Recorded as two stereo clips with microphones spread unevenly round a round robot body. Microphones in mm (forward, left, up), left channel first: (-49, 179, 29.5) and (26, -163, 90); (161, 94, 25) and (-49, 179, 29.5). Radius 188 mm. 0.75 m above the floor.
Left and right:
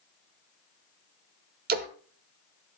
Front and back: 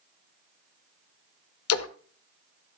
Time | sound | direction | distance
1.7 | a splash | 20° right | 0.8 m